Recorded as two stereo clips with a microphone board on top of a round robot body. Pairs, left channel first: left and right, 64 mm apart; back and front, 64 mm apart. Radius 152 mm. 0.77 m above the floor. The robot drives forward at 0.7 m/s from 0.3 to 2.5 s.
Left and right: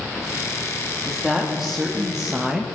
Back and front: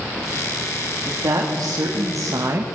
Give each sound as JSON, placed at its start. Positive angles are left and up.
{"t": 1.1, "sound": "a woman speaking", "azimuth_deg": -5, "distance_m": 2.0}